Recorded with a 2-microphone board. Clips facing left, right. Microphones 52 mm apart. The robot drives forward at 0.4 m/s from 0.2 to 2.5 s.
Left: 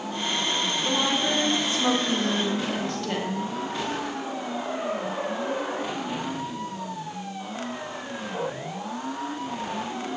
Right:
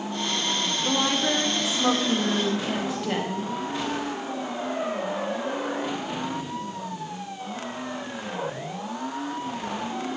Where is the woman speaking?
10° right (ahead or behind), 1.9 m.